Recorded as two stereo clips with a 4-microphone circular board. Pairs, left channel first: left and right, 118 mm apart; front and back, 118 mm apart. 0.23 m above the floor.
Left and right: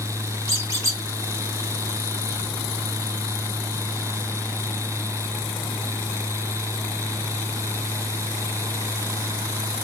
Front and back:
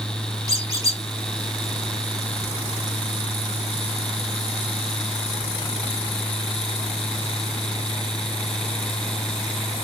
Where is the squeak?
140° right, 1.3 m.